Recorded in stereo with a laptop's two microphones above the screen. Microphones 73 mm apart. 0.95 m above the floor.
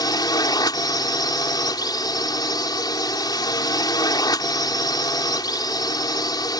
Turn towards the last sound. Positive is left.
turn(degrees=70)  # may be behind; listen again after turning